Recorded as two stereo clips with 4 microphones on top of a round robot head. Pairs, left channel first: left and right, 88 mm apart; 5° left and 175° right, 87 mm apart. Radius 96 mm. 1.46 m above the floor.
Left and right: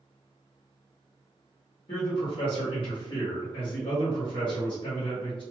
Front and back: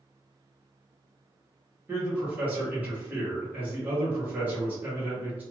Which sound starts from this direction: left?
A man speaking, at 1.9 s.